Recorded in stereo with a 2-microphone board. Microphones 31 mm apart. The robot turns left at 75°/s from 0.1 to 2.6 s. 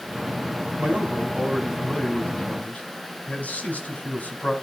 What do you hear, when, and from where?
0.8 s a man speaking: 110° right, 3.5 m; by 4.5 s 115° left, 3.5 m